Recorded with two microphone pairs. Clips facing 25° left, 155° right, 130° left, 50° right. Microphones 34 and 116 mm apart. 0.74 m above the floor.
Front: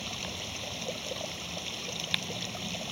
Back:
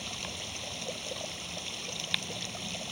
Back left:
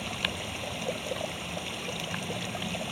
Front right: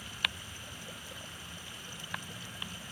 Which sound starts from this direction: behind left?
Running water, at 0.0 s.